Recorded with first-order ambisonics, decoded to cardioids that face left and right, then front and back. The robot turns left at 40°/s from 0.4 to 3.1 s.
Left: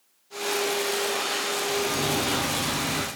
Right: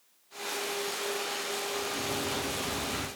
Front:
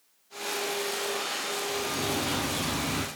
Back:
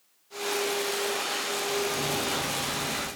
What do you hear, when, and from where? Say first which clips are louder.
1.7 s a bird: left 7 dB, back 2 dB; 95° left, 1.0 m; by 3.1 s 40° left, 1.0 m